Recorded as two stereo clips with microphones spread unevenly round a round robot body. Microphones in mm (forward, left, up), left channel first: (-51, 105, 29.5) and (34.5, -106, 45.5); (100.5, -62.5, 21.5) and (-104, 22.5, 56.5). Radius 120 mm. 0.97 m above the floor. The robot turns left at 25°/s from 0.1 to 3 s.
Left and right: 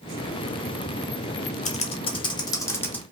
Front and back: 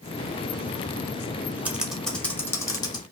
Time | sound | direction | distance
1.6 | typing on a keyboard | 70° left | 0.9 m